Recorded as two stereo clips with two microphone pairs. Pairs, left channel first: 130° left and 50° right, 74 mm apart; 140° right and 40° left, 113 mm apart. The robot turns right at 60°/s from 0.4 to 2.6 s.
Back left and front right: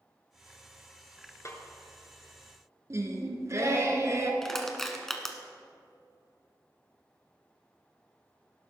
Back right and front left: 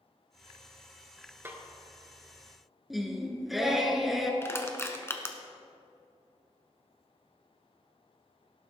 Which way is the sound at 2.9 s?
50° right.